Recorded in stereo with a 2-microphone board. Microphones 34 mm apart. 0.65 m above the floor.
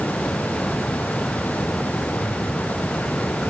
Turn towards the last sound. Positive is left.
No sound to turn to.